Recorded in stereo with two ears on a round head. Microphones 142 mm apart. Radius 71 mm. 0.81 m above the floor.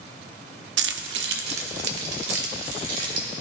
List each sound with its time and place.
0.8 s keys jangling: 80° right, 0.8 m; by 3.3 s 65° right (ahead or behind), 3.5 m